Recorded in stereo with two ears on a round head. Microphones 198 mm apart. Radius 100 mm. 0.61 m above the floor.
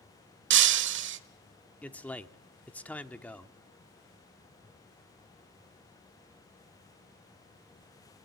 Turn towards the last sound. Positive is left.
turn(degrees=5)  # may be behind; listen again after turning